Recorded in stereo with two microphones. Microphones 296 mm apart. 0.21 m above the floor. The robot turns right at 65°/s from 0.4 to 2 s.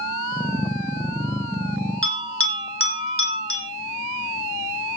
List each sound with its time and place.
2.0 s a bell: 45° left (ahead or behind), 4 m